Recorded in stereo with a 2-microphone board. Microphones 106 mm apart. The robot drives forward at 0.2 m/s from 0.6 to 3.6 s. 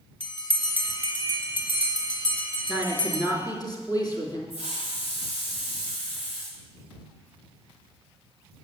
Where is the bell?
50° left (ahead or behind), 1.9 m; by 3.2 s 60° left (ahead or behind), 1.7 m.